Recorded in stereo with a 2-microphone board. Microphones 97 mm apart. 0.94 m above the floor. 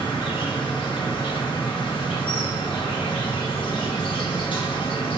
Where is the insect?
55° left (ahead or behind), 0.9 m.